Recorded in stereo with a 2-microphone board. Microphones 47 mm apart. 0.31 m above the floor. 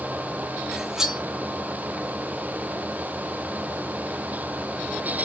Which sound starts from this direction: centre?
Cutlery clinking, at 0.7 s.